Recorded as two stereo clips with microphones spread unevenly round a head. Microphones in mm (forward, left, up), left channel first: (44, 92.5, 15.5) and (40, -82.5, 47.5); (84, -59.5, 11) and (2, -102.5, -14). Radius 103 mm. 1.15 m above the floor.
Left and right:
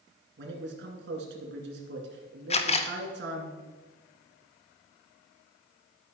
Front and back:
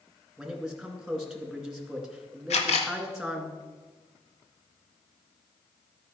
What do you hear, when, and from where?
0.4 s a man speaking: 70° right, 2 m
2.5 s a camera shutter: 40° left, 0.9 m